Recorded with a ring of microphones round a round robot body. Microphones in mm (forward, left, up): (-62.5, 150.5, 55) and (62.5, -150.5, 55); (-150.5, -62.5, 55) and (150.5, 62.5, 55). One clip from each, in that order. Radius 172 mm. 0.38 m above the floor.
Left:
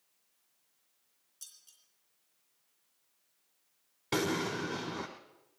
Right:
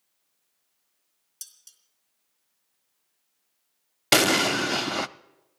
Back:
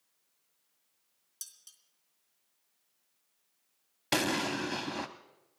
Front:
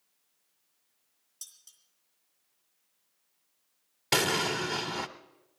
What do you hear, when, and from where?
1.4 s dishes clattering: 100° right, 3.5 m
4.1 s an explosion: 65° right, 0.5 m